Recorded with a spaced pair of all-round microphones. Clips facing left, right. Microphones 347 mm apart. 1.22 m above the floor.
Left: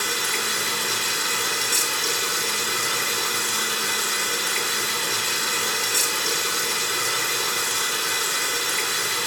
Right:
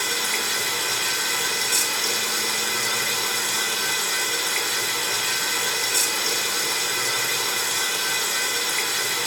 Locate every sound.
0.0 s running water: 20° left (ahead or behind), 2 m